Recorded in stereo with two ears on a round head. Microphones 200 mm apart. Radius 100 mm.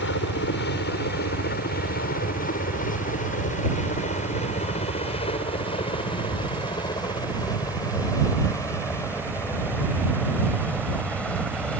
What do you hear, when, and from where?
0.0 s a helicopter: 55° left (ahead or behind); by 11.8 s 5° left (ahead or behind)